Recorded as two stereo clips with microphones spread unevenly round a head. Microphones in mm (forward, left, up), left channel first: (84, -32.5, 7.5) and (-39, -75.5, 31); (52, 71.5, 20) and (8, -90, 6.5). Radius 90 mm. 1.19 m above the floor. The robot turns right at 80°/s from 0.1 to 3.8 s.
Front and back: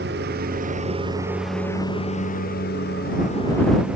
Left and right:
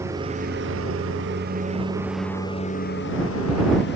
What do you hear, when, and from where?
0.0 s a lawn mower: 175° left; by 4.0 s 115° left